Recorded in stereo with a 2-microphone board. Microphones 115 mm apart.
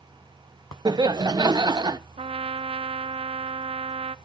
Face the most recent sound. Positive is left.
turn(degrees=-55)  # may be behind; listen again after turning